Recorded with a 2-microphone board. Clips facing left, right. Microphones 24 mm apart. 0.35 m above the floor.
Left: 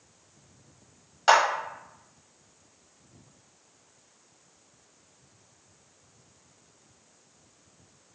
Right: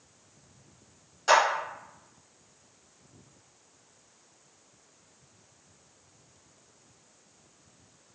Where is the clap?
40° left (ahead or behind), 1.0 m.